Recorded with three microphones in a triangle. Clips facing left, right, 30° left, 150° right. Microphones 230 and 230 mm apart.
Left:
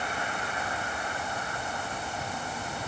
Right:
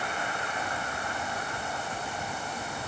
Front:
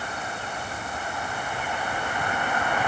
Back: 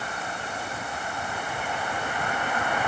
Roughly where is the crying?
I don't hear crying.